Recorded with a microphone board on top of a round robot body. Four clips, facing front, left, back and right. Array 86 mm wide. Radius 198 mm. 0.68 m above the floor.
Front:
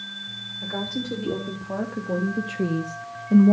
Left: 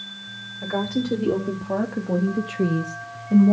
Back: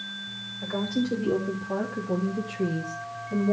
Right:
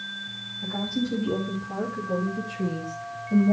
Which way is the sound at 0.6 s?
90° left.